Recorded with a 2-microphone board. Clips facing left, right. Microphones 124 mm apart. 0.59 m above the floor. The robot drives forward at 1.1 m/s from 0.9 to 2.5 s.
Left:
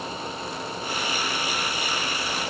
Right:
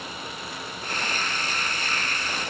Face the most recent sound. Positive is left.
No sound to turn to.